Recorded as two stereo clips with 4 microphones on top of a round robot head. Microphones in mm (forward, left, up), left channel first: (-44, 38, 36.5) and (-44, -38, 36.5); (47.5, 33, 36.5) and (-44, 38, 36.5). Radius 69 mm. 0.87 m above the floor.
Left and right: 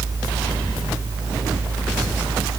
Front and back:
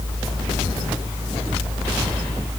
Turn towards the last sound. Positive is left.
No sound to turn to.